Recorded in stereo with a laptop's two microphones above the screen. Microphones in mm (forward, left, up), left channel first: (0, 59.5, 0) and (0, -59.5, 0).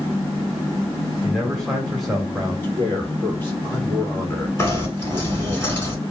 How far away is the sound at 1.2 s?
About 2.5 m.